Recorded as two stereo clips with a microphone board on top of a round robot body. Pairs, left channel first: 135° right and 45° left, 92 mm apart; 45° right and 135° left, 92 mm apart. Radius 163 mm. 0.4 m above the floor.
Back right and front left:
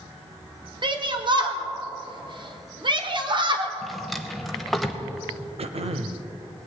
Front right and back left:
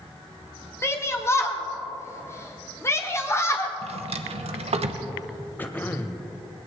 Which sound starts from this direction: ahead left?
Throat clearing, at 5.6 s.